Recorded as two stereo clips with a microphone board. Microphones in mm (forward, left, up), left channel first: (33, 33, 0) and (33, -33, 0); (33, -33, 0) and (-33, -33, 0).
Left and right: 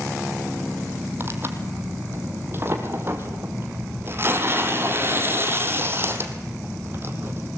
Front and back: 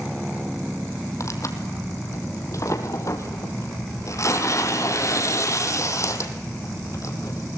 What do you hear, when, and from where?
1.2 s tearing paper: 35° right, 2.5 m